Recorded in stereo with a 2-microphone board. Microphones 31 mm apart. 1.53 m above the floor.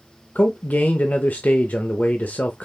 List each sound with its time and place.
0.3 s a man speaking: 65° left (ahead or behind), 0.6 m